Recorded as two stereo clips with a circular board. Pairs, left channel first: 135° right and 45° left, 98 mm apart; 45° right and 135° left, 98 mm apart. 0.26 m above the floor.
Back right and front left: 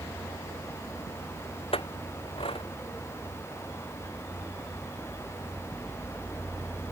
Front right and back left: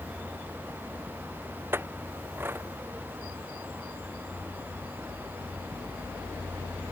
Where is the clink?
160° right.